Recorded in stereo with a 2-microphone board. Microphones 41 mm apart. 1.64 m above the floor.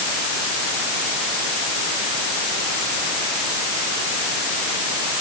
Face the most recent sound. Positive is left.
No sound to turn to.